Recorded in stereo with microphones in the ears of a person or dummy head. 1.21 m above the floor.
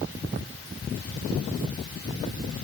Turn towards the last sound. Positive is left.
No sound to turn to.